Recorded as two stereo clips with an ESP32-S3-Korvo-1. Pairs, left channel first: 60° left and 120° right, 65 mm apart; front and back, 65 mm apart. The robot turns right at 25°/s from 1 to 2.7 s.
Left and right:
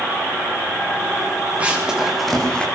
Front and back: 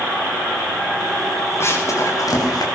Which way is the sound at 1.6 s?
50° right.